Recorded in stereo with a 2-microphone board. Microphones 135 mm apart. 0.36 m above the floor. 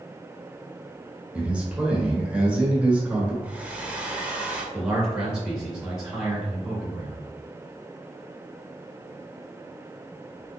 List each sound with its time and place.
1.3 s a man speaking: 10° right (ahead or behind), 1.3 m
3.4 s a hair dryer: 10° right (ahead or behind), 0.7 m
4.7 s a man speaking: 5° right (ahead or behind), 1.4 m